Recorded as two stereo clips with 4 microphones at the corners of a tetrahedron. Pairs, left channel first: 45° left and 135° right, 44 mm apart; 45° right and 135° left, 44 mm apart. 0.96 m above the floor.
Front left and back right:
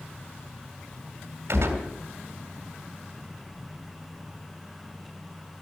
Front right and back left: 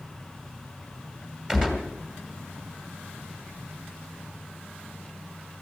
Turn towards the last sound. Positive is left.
turn(degrees=-150)